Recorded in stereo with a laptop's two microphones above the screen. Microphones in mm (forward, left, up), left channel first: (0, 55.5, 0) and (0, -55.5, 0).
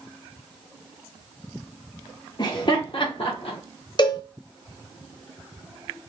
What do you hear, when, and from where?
2.4 s laughter: 40° left (ahead or behind), 0.6 m; by 3.6 s 55° left (ahead or behind), 1.0 m
4.0 s a cowbell: 45° left (ahead or behind), 0.6 m